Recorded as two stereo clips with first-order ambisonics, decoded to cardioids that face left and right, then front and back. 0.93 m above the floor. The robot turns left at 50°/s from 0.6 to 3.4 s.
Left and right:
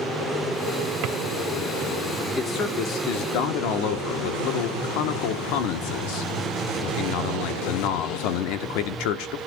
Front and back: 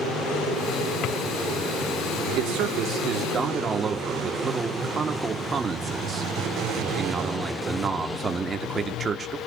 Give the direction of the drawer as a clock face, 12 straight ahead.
2 o'clock.